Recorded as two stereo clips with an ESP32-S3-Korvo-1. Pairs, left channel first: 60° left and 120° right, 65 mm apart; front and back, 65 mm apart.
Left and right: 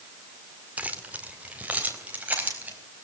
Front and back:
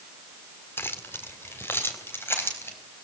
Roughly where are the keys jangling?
Ahead right.